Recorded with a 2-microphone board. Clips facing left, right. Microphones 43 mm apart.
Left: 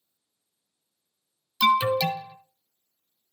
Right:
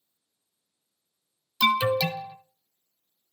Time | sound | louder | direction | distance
1.6 | an alarm | left 2 dB | centre (ahead or behind) | 1.2 m